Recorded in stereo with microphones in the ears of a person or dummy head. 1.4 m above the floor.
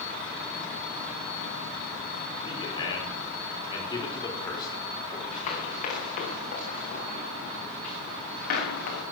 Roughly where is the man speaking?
Left.